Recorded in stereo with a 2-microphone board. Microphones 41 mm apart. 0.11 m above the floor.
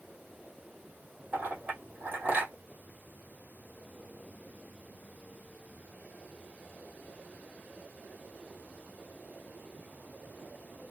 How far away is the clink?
About 2.5 m.